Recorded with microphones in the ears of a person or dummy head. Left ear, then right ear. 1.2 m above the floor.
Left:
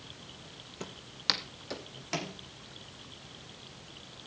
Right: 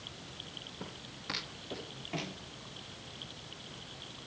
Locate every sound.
0.8 s footsteps: 40° left (ahead or behind), 1.7 m; by 2.4 s 70° left (ahead or behind), 3.5 m